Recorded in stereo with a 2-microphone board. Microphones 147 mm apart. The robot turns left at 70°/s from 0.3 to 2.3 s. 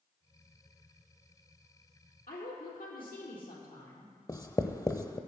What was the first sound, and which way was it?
A woman speaking, 75° left (ahead or behind).